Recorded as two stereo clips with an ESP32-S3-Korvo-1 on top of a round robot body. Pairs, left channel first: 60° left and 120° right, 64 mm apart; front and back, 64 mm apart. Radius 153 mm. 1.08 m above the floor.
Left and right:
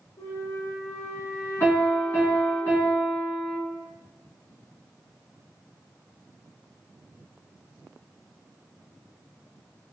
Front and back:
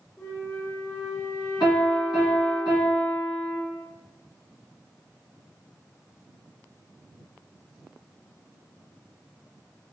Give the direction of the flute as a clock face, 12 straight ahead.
10 o'clock.